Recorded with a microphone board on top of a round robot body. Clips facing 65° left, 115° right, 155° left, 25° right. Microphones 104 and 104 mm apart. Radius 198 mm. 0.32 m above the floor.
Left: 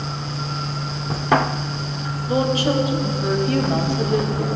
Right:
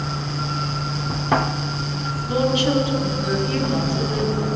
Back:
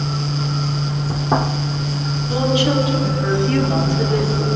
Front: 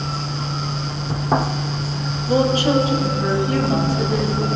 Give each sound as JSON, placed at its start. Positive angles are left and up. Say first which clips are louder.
{"t": 2.3, "sound": "a woman speaking", "louder": "even, front 2 dB", "azimuth_deg": 10, "distance_m": 1.8}